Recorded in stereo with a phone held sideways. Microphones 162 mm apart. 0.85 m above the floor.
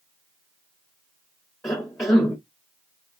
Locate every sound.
1.6 s a cough: 15° left (ahead or behind), 0.8 m